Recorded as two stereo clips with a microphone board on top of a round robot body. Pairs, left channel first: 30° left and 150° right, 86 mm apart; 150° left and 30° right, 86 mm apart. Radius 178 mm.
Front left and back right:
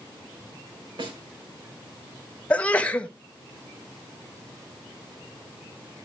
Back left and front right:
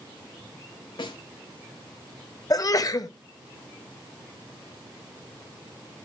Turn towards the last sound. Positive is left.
turn(degrees=105)